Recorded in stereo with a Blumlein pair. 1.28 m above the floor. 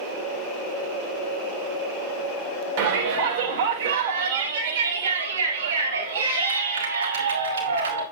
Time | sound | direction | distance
2.8 | a shout | 45° right | 3.5 m